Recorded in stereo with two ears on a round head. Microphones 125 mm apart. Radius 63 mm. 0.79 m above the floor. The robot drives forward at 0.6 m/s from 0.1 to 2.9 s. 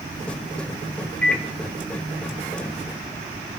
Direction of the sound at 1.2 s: 10° left (ahead or behind).